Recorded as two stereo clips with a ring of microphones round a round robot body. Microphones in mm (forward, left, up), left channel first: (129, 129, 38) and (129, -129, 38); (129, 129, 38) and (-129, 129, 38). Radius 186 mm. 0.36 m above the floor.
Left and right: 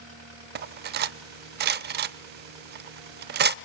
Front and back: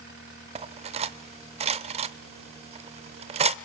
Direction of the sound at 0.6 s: 120° right.